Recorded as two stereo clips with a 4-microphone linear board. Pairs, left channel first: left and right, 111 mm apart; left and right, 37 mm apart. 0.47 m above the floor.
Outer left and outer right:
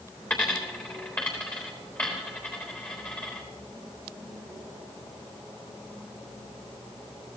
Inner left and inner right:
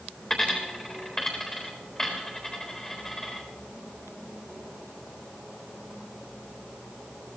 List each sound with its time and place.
0.3 s a dropped coin: 15° left (ahead or behind), 3.5 m